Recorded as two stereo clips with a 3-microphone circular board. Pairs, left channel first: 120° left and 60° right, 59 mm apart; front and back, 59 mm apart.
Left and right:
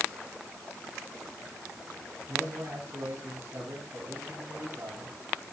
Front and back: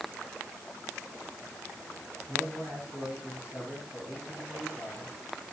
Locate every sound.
2.3 s a man speaking: 110° right, 7 m